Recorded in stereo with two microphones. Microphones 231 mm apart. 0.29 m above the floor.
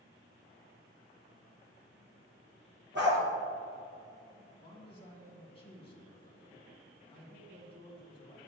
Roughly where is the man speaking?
Left.